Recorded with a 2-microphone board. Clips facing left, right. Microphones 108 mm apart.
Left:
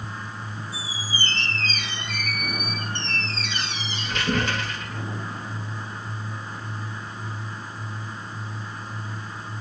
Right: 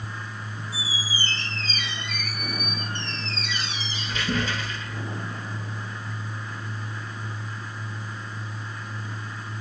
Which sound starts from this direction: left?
A squeak, at 0.7 s.